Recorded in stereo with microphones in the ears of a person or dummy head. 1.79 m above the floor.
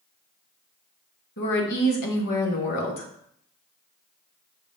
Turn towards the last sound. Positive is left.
turn(degrees=60)  # may be behind; listen again after turning